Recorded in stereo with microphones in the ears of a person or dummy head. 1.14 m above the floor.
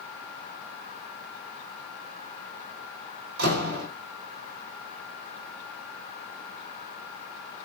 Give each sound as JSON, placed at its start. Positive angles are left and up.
{"t": 3.4, "sound": "a door slam", "side_deg": -60, "distance_m": 1.8}